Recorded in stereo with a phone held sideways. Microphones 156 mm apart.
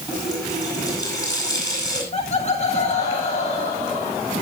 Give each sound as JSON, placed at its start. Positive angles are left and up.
{"t": 0.1, "sound": "a running tap", "side_deg": 25, "distance_m": 8.5}
{"t": 2.1, "sound": "laughter", "side_deg": 40, "distance_m": 1.7}